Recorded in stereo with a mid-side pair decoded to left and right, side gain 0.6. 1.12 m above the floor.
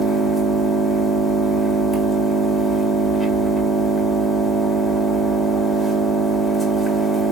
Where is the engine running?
5° left, 1.9 m.